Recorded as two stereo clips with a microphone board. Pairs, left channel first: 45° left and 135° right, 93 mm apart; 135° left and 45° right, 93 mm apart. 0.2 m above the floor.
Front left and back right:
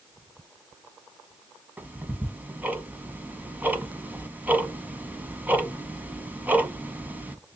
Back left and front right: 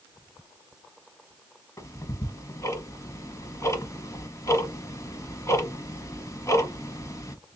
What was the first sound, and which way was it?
Ticking, 165° left.